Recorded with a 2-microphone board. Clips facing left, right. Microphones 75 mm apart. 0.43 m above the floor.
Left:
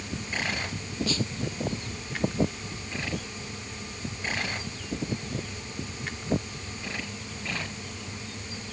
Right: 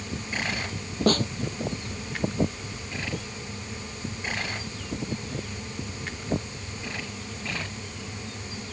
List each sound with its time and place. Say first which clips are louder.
1.1 s a snare drum: right 9 dB; 50° right (ahead or behind)